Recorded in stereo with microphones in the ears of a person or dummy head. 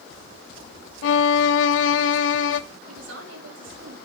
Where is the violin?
75° left (ahead or behind), 0.8 m.